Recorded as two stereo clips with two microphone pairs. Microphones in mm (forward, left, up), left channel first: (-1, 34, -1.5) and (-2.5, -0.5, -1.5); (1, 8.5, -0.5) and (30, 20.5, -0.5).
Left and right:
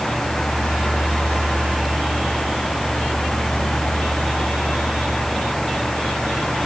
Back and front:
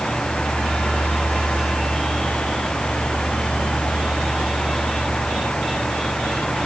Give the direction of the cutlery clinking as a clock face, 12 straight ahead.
I don't hear cutlery clinking.